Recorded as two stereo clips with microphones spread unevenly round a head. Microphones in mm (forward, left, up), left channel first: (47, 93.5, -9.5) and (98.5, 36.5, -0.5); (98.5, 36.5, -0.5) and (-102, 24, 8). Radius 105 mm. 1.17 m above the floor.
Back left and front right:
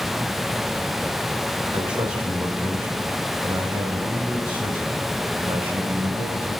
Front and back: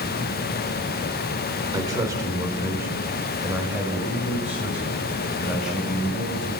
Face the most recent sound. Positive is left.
turn(degrees=-90)